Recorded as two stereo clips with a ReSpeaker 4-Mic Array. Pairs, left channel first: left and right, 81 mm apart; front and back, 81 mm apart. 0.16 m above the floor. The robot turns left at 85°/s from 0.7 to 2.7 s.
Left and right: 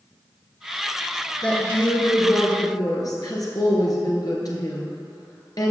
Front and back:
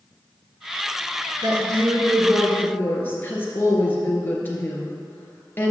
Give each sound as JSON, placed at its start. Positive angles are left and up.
{"t": 1.4, "sound": "a woman speaking", "azimuth_deg": 170, "distance_m": 2.0}